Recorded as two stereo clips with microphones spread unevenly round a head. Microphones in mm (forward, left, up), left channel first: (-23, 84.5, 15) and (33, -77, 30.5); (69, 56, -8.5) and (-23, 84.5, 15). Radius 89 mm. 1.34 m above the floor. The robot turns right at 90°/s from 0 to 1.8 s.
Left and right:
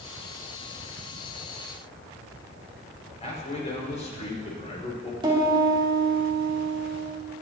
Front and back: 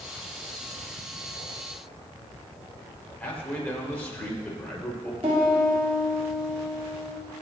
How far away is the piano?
About 3.5 m.